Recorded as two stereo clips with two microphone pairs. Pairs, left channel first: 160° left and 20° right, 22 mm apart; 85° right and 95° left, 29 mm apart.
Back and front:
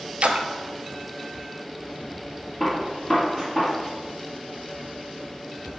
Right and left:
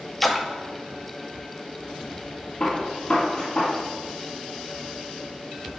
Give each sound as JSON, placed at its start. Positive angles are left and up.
{"t": 0.2, "sound": "a splash", "azimuth_deg": 0, "distance_m": 0.6}
{"t": 2.6, "sound": "a gunshot", "azimuth_deg": -140, "distance_m": 2.5}